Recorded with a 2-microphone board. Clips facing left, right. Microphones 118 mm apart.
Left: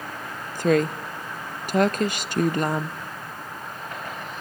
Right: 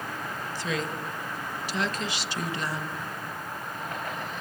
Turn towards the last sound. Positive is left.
turn(degrees=50)  # may be behind; listen again after turning